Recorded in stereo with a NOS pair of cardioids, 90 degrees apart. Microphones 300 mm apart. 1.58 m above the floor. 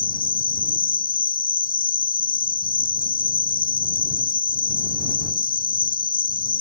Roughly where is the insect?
Ahead left.